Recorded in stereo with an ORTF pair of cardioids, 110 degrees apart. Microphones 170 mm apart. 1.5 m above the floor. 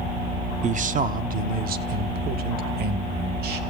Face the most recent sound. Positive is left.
turn(degrees=-70)